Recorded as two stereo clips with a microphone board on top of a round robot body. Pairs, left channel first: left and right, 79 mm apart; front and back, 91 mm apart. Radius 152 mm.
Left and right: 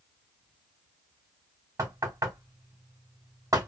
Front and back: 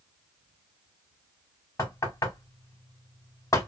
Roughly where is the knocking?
Ahead right.